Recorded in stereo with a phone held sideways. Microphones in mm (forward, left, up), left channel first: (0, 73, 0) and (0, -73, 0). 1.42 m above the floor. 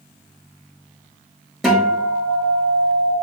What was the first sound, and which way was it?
A guitar, centre (ahead or behind).